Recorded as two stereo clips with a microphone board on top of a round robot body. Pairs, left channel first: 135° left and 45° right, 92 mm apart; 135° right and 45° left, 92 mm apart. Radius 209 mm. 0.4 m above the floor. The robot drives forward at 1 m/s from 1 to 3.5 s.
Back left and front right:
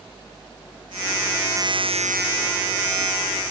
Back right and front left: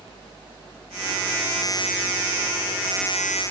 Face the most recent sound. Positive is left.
No sound to turn to.